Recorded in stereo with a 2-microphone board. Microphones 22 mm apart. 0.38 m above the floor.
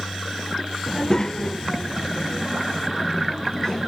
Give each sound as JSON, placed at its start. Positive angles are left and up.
{"t": 0.9, "sound": "a child speaking", "side_deg": 25, "distance_m": 0.6}